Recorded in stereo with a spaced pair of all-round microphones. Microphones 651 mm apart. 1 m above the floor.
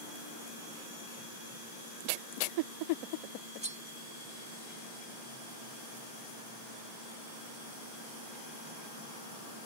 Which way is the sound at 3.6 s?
10° right (ahead or behind).